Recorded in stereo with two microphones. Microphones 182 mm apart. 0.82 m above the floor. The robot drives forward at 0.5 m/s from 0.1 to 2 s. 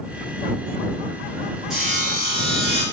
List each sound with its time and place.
1.7 s sawing: centre (ahead or behind), 1.7 m